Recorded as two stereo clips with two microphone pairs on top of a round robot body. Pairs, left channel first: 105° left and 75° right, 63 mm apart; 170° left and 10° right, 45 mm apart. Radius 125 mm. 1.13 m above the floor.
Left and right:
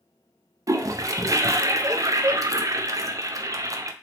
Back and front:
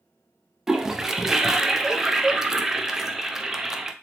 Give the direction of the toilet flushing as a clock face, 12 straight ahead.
3 o'clock.